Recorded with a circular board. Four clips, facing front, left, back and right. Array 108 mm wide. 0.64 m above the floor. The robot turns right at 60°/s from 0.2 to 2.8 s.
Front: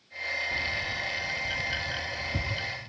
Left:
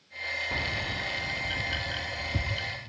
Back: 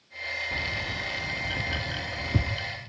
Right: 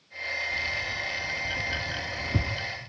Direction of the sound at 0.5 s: 110° left.